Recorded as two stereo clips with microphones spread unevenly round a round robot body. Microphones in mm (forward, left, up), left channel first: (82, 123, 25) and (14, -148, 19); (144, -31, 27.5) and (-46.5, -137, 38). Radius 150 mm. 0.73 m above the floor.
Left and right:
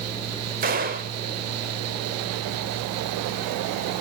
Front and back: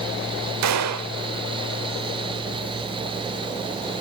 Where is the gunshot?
170° right, 1.3 m.